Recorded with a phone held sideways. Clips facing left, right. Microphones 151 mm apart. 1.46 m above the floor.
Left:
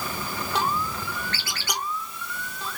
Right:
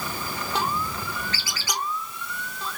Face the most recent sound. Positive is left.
turn(degrees=60)  # may be behind; listen again after turning